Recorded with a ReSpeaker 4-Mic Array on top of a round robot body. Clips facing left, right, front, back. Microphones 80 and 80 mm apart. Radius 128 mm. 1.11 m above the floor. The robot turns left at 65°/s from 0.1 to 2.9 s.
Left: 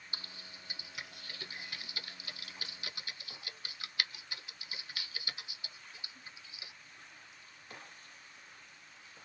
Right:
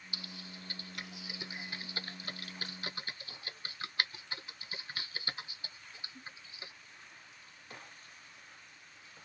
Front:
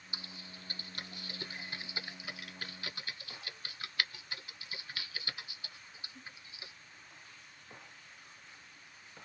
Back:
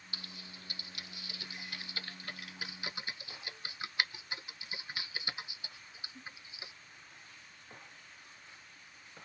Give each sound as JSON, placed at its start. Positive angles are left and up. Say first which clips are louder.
{"t": 0.1, "sound": "typing on a keyboard", "louder": "right 4 dB, front 1 dB", "azimuth_deg": 60, "distance_m": 0.6}